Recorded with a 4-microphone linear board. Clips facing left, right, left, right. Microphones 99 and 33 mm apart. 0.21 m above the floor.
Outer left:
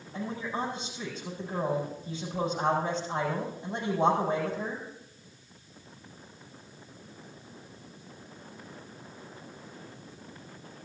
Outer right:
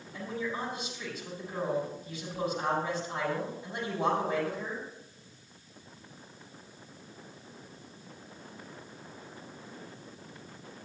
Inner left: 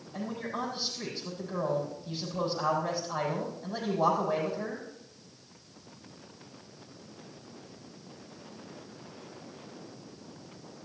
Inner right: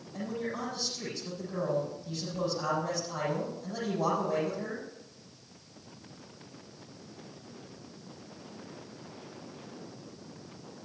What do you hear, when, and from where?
0.1 s a man speaking: 30° left (ahead or behind), 6.5 m